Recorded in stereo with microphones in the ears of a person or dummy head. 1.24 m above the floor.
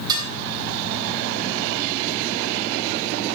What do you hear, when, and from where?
0.1 s dishes clattering: 15° right (ahead or behind), 8 m